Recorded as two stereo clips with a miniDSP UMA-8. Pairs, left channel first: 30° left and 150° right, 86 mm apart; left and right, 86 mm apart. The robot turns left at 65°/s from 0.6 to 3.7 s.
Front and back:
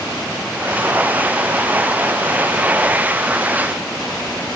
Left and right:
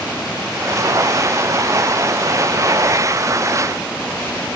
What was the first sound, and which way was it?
Only background noise.